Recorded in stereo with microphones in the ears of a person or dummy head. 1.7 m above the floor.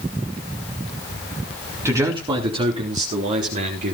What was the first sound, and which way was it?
A man speaking, 20° right (ahead or behind).